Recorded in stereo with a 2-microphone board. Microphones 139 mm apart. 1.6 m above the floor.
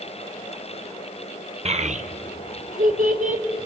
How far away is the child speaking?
About 1.1 m.